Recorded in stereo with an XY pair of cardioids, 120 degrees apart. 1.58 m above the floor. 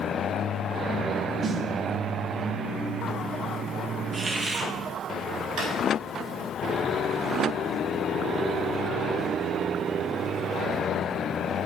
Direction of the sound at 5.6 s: 70° right.